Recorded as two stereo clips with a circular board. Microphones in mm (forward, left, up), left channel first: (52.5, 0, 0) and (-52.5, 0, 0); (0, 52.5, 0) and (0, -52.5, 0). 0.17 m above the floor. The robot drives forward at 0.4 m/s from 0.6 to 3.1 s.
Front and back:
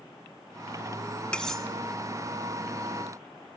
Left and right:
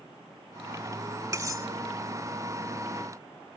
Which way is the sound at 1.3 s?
75° right.